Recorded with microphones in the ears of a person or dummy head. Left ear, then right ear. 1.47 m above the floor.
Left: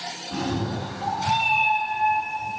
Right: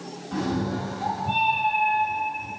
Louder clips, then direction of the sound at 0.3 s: Right 2 dB; 15° right (ahead or behind).